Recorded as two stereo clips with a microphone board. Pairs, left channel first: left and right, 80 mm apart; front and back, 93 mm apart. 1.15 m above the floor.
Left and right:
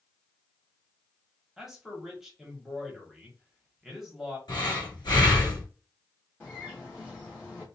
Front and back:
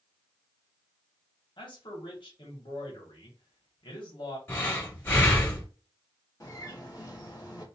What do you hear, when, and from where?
1.6 s a man speaking: 5° right, 1.2 m
4.5 s breathing: 65° left, 1.5 m
6.4 s a bird: 35° left, 1.3 m